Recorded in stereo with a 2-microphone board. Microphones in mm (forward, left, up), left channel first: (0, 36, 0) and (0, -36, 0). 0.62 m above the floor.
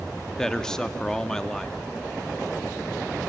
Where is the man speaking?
10° left (ahead or behind), 0.7 m.